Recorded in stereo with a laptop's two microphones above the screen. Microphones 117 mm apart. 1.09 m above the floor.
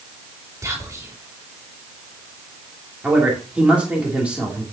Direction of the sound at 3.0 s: 10° right (ahead or behind).